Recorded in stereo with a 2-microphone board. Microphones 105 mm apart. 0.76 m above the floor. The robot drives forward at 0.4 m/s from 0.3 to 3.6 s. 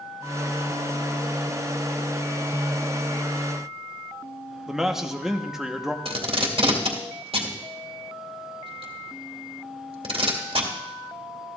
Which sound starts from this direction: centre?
A man speaking, at 4.7 s.